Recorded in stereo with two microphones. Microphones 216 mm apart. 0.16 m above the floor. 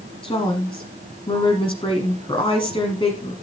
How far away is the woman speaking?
About 1.2 m.